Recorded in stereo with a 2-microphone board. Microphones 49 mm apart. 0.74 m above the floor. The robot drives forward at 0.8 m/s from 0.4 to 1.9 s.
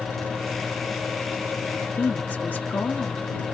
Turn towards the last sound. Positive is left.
turn(degrees=35)  # may be behind; listen again after turning